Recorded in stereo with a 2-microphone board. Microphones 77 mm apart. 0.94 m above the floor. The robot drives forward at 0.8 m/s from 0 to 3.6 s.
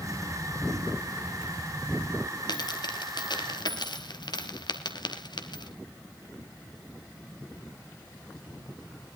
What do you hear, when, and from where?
2.5 s a dropped coin: 65° left (ahead or behind), 2 m